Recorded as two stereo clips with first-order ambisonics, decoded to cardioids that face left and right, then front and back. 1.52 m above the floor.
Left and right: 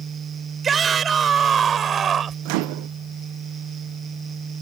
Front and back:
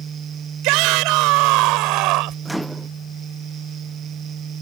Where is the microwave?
90° right.